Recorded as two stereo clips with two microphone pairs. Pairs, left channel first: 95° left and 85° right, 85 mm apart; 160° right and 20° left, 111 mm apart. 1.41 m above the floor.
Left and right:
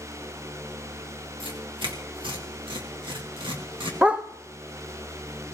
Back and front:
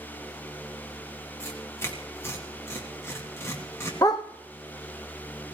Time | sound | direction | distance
1.4 | tearing paper | 95° right | 2.5 m
4.0 | a dog barking | 150° right | 0.9 m